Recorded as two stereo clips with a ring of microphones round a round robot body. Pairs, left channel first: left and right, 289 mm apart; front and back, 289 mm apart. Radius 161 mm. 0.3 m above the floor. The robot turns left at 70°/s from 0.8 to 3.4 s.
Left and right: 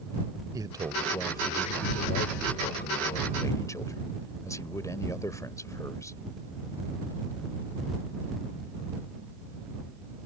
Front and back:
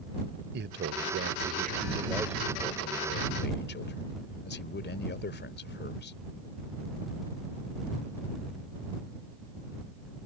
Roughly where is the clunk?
No clunk in this recording.